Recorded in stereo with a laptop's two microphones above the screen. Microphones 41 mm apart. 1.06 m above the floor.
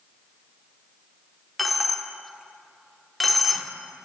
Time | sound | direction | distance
1.6 | a dropped coin | 5° left (ahead or behind) | 0.7 m